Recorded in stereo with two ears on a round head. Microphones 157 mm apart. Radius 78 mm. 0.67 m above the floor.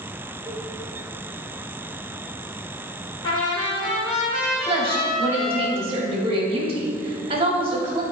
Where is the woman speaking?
30° right (ahead or behind), 1.6 m.